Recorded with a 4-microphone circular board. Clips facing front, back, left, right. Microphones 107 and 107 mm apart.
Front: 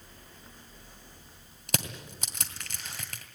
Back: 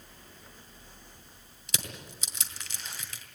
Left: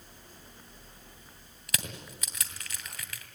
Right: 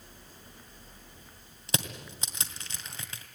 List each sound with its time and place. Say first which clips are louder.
1.7 s crushing: front 6 dB, right 4 dB; 30° right, 2 m